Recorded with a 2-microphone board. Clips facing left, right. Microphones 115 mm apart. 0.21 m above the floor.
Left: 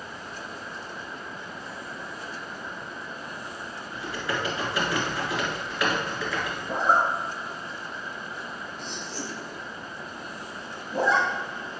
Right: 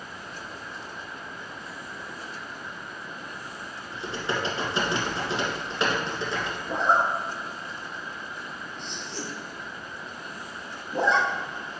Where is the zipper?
Centre (ahead or behind), 1.3 m.